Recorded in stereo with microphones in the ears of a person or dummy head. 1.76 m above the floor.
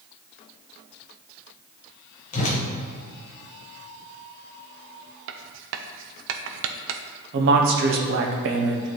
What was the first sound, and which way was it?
A whoosh, 45° left (ahead or behind).